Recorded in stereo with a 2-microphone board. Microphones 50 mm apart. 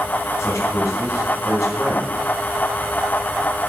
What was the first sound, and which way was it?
A man speaking, 75° left (ahead or behind).